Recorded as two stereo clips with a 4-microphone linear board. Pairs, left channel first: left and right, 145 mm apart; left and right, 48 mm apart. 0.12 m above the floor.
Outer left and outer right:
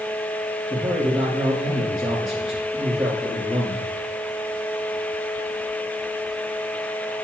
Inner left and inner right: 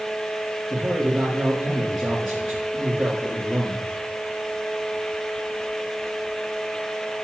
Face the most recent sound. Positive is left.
turn(degrees=-5)  # may be behind; listen again after turning